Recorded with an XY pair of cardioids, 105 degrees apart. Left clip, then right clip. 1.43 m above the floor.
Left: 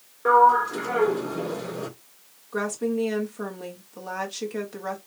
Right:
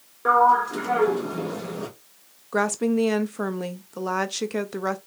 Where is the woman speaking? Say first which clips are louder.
Right 4 dB; 55° right, 0.8 m.